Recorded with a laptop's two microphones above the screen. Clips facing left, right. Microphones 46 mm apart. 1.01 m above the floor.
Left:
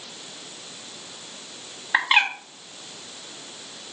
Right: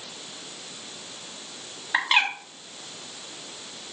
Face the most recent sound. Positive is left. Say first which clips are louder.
# left 2 dB
turn(degrees=10)  # may be behind; listen again after turning